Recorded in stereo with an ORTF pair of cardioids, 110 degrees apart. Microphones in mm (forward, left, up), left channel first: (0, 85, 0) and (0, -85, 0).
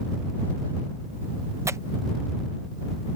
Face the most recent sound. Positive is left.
turn(degrees=-15)